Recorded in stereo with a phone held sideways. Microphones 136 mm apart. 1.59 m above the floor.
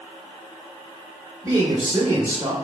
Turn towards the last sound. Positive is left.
turn(degrees=-30)  # may be behind; listen again after turning